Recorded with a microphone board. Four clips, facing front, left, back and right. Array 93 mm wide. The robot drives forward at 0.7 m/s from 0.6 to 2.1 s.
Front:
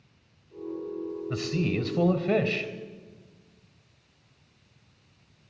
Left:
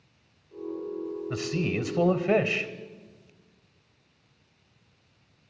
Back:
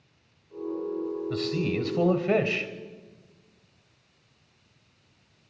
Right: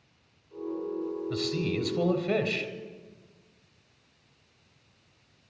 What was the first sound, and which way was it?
A man speaking, 50° left.